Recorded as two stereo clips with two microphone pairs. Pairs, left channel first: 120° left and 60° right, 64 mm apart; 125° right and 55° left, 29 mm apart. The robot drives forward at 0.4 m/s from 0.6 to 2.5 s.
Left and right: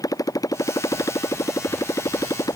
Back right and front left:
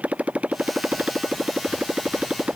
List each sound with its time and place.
0.0 s a motorcycle: 95° left